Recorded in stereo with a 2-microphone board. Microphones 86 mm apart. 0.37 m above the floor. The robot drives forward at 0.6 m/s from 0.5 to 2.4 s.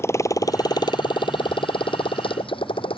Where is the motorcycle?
30° left (ahead or behind); by 3.0 s 90° left.